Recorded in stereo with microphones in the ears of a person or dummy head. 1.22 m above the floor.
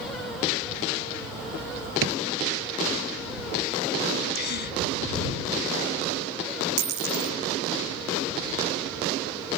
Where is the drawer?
75° right (ahead or behind).